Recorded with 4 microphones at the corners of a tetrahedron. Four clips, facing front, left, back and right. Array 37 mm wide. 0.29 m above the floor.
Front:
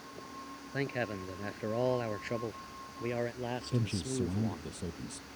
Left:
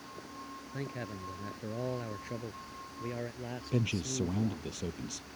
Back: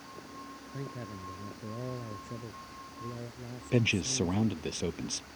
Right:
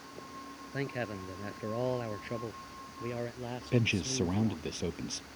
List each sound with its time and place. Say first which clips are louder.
0.7 s a man speaking: right 5 dB, front 8 dB; 30° right; by 4.7 s straight ahead
3.7 s a man speaking: right 3 dB, back 10 dB; 150° right